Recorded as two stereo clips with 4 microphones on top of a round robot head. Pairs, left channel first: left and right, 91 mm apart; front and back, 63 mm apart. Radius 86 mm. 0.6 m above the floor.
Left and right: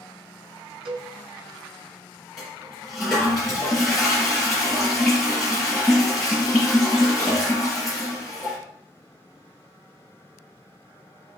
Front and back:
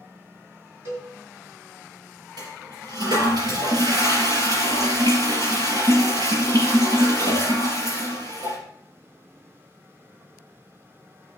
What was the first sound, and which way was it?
A cowbell, 120° right.